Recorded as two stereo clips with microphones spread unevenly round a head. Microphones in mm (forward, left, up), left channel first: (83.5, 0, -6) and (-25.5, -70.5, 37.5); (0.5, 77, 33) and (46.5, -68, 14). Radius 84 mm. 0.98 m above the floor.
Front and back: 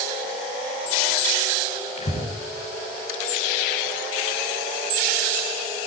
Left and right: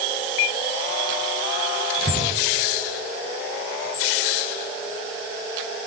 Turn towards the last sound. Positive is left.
turn(degrees=0)